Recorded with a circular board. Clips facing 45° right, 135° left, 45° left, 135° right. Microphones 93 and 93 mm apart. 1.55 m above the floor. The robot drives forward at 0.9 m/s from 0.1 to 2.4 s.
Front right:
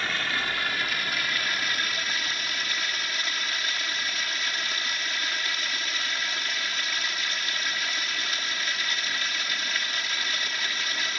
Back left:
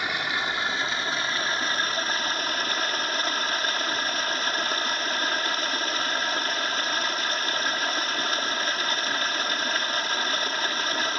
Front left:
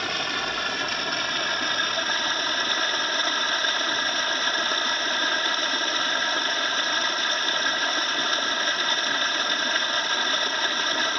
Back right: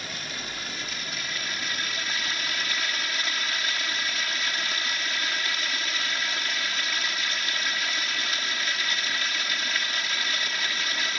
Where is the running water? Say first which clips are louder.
Back left 2 dB, front left 9 dB; 60° left; by 11.2 s 90° left.